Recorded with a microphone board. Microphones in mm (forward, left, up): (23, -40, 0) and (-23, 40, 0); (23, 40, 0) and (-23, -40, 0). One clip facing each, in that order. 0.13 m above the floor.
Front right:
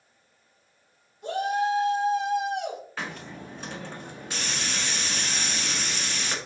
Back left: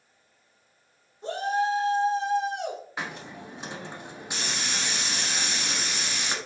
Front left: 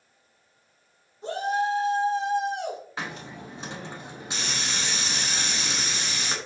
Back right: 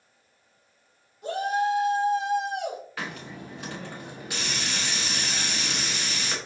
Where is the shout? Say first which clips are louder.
Front right 1 dB, back right 1 dB; 90° left, 1.3 m.